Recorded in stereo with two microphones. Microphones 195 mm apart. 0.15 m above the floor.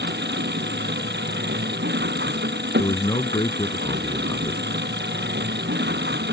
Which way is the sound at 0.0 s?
55° right (ahead or behind).